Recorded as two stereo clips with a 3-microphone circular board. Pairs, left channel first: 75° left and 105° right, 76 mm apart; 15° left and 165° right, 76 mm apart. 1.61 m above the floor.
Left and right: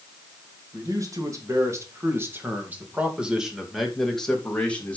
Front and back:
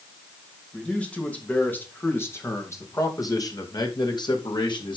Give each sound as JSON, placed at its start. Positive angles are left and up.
{"t": 0.7, "sound": "a man speaking", "azimuth_deg": -65, "distance_m": 3.0}